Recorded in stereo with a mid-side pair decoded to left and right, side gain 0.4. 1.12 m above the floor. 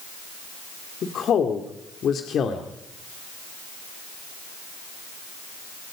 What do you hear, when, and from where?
1.0 s a woman speaking: 65° left, 2.5 m